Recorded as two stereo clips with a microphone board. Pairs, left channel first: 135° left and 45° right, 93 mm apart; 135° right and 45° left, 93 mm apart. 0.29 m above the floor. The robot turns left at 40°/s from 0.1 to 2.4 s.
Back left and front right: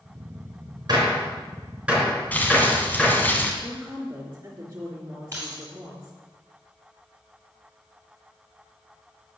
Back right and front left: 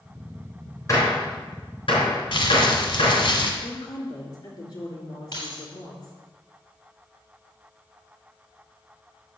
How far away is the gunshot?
About 3.5 m.